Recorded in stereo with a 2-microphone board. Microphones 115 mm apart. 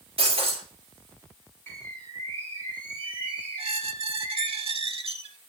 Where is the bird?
20° left (ahead or behind), 2.0 m.